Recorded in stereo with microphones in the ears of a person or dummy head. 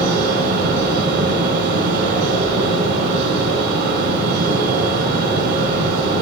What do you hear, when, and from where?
0.0 s a fan: 65° right (ahead or behind), 5 m